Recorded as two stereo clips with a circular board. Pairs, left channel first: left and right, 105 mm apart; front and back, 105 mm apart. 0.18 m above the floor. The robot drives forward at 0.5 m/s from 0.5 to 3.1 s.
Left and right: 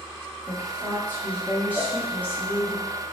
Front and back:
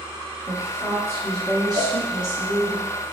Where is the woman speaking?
130° left, 1.3 m; by 2.8 s 165° left, 1.9 m.